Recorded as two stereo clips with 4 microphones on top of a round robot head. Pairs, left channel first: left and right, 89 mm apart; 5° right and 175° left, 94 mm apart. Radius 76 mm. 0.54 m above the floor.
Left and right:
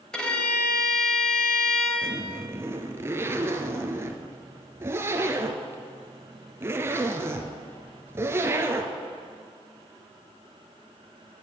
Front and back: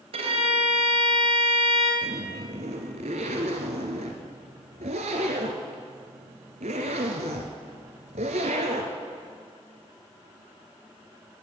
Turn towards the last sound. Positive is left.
turn(degrees=-155)